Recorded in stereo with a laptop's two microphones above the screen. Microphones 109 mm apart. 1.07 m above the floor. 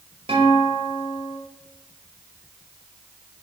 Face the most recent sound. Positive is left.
turn(degrees=-50)  # may be behind; listen again after turning